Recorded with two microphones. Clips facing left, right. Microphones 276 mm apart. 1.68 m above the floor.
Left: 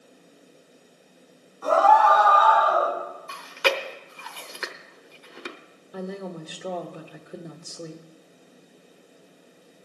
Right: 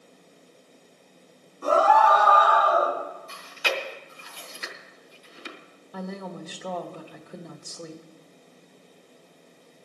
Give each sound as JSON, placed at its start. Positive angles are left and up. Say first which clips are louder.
{"t": 1.6, "sound": "a scream", "louder": "left 1 dB", "side_deg": -40, "distance_m": 6.0}
{"t": 3.3, "sound": "chewing", "louder": "left 7 dB", "side_deg": 70, "distance_m": 0.9}
{"t": 5.9, "sound": "a woman speaking", "louder": "left 2 dB", "side_deg": 15, "distance_m": 1.1}